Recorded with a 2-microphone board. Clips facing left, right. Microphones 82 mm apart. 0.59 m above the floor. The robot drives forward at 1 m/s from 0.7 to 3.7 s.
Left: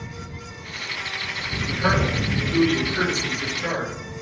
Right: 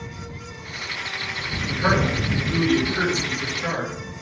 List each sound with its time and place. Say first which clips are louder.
1.7 s a man speaking: right 1 dB; 15° right (ahead or behind), 2.5 m; by 3.9 s 10° right (ahead or behind), 4.5 m